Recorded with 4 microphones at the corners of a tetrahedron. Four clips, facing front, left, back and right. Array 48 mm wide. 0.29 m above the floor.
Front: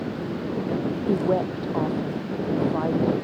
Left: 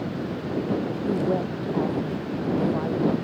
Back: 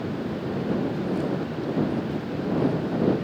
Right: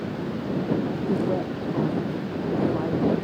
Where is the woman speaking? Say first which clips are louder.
Left 2 dB, front 4 dB; 5° left.